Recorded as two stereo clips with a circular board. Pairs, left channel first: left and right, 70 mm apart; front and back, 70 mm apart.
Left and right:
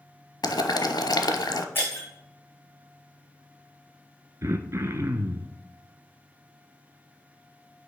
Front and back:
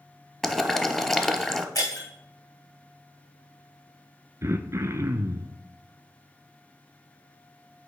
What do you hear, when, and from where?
0.4 s boiling: 80° left, 0.7 m
1.8 s breaking glass: 30° left, 3 m
4.4 s throat clearing: 135° right, 0.6 m